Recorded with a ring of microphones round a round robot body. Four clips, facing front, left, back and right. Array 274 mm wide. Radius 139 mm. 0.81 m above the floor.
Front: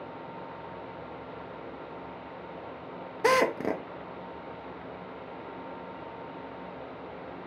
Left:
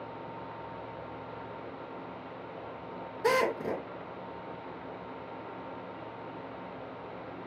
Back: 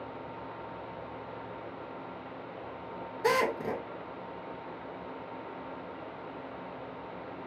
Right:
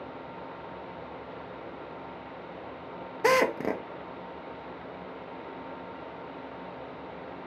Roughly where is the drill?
Ahead right.